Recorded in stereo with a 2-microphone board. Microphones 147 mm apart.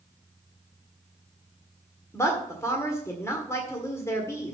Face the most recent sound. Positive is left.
turn(degrees=20)  # may be behind; listen again after turning